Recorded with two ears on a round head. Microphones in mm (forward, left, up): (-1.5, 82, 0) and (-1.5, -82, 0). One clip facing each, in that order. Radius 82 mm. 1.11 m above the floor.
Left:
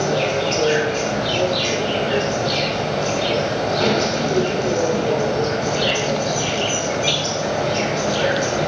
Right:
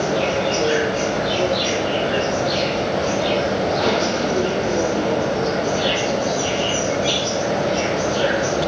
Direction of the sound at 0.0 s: 40° left (ahead or behind).